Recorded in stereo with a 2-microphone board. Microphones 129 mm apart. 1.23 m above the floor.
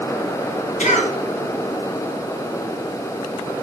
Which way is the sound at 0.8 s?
70° left (ahead or behind).